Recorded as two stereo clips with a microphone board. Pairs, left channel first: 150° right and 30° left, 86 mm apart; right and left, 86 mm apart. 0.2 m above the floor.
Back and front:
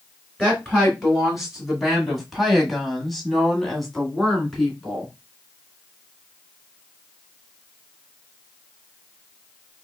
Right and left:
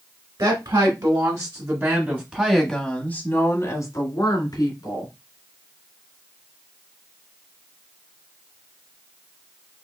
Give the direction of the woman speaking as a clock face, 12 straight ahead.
8 o'clock.